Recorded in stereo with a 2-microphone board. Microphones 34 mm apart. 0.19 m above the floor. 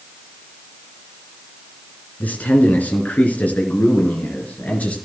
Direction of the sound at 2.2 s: 55° left (ahead or behind).